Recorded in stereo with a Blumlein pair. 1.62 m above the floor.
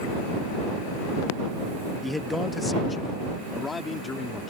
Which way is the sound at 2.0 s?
5° left.